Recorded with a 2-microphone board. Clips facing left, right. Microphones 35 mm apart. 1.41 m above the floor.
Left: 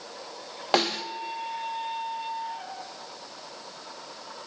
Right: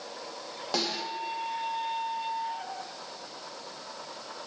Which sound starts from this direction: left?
A snare drum, at 0.7 s.